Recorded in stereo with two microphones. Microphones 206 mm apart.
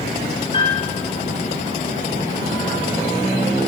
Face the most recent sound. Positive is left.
turn(degrees=25)  # may be behind; listen again after turning